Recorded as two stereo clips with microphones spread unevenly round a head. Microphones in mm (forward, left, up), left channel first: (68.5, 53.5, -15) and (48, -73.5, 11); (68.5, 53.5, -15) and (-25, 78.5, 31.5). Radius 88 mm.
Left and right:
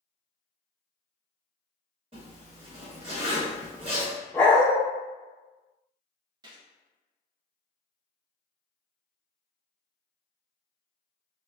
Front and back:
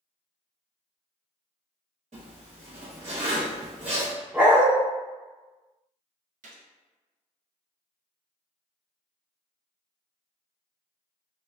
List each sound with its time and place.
2.1 s a zipper: 160° right, 1.6 m
4.3 s a dog barking: 170° left, 0.7 m
6.4 s a gunshot: 170° right, 0.5 m